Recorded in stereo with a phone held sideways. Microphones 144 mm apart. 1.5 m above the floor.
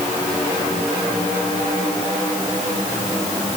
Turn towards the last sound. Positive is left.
No sound to turn to.